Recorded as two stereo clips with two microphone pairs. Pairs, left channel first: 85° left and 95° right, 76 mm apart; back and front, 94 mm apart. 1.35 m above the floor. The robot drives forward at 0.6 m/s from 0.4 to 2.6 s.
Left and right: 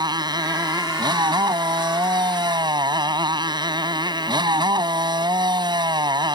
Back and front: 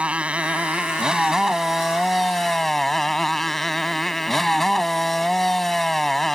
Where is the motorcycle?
75° right; by 6.3 s 95° right.